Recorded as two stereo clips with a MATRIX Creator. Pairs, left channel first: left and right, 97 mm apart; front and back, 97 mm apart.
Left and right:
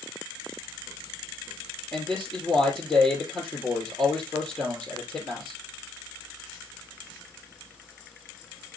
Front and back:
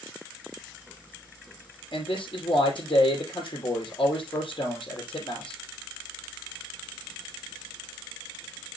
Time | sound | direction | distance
1.9 | a man speaking | 20° left | 3 m